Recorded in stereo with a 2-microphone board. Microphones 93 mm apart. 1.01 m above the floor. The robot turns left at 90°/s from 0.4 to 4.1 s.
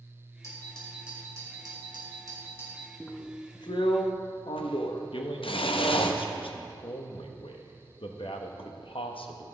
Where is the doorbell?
40° left, 2 m; by 2.9 s straight behind, 2 m.